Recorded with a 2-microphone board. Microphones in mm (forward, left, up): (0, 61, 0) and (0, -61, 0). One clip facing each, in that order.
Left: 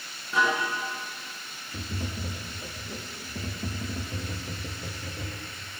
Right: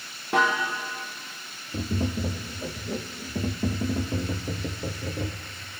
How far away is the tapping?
About 1.4 m.